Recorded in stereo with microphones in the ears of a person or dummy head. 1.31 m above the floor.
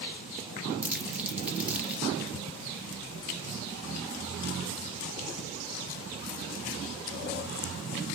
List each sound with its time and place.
0.8 s crumpling: 10° right (ahead or behind), 0.5 m